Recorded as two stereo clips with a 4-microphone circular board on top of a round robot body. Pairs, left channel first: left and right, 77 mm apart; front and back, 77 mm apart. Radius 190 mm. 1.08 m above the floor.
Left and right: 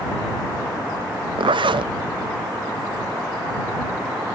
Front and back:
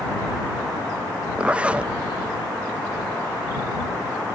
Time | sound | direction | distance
1.4 | a zipper | 105° right | ?